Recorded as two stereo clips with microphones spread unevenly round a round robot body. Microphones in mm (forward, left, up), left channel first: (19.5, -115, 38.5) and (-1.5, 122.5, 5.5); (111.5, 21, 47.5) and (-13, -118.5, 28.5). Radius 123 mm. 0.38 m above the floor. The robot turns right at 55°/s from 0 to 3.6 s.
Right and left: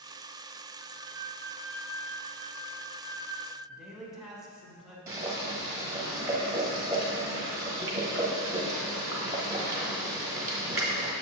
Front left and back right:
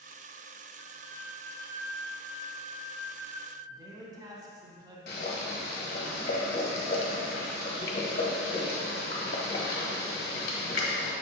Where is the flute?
115° left, 1.6 m; by 3.6 s 95° right, 1.6 m.